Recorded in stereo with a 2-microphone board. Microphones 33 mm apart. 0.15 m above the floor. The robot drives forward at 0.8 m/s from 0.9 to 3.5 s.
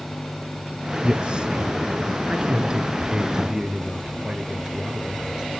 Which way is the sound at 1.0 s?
30° right (ahead or behind).